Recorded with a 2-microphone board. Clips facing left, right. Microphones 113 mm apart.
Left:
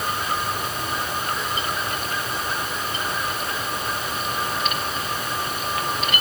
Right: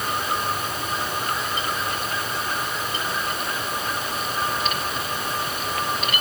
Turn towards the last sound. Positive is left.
No sound to turn to.